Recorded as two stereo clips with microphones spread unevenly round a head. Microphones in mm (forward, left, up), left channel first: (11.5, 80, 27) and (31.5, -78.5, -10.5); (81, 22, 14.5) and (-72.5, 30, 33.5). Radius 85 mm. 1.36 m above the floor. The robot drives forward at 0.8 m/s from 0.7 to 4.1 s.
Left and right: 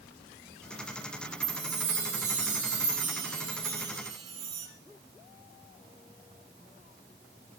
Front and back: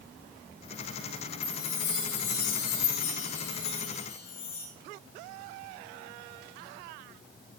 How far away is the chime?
About 4 m.